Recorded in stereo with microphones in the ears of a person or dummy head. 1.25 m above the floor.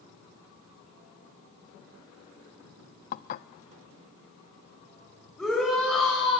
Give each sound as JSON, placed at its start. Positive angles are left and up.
{"t": 3.1, "sound": "dishes clattering", "side_deg": 50, "distance_m": 0.9}
{"t": 5.4, "sound": "a shout", "side_deg": -5, "distance_m": 6.0}